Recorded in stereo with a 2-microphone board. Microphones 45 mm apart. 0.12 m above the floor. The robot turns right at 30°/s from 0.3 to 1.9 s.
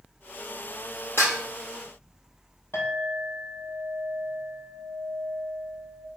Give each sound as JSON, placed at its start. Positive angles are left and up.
{"t": 1.2, "sound": "dishes clattering", "side_deg": 70, "distance_m": 2.5}
{"t": 2.7, "sound": "a clink", "side_deg": 75, "distance_m": 3.0}